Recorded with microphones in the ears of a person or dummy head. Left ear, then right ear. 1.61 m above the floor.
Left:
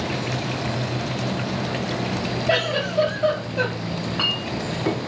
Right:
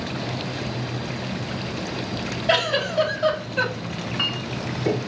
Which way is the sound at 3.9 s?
10° left (ahead or behind).